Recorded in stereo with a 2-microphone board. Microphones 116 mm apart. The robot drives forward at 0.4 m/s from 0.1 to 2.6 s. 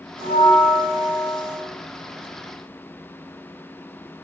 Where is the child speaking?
No child speaking in this recording.